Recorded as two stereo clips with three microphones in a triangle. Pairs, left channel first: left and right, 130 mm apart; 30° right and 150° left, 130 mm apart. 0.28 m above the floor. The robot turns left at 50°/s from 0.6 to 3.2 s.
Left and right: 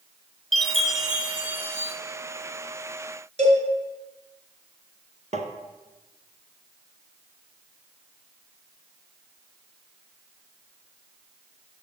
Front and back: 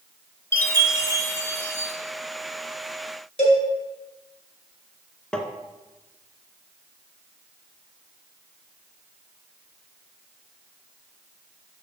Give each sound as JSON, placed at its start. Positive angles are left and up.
{"t": 0.5, "sound": "a chime", "azimuth_deg": 10, "distance_m": 0.8}
{"t": 3.4, "sound": "a cowbell", "azimuth_deg": -60, "distance_m": 3.0}
{"t": 5.3, "sound": "tapping", "azimuth_deg": -115, "distance_m": 0.8}